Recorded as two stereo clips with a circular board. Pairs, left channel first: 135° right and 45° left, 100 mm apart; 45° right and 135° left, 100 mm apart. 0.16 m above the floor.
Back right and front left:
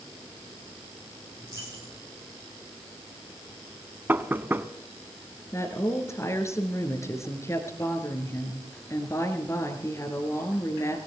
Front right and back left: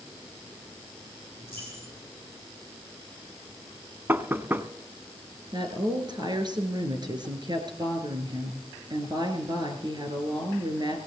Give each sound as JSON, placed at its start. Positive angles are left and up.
{"t": 1.4, "sound": "a dropped coin", "azimuth_deg": 100, "distance_m": 8.5}
{"t": 4.1, "sound": "knocking", "azimuth_deg": 90, "distance_m": 0.7}
{"t": 5.5, "sound": "a woman speaking", "azimuth_deg": 170, "distance_m": 3.0}